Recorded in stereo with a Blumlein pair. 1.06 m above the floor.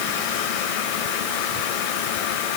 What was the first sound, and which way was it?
Only background noise.